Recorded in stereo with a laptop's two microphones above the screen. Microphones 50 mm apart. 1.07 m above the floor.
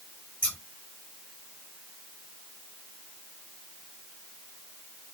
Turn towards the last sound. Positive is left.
turn(degrees=-45)  # may be behind; listen again after turning